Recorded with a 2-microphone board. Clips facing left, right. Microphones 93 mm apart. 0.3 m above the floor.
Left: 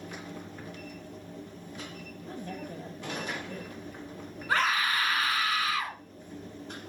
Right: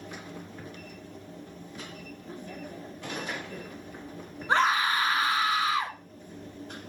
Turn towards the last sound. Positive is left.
turn(degrees=-25)  # may be behind; listen again after turning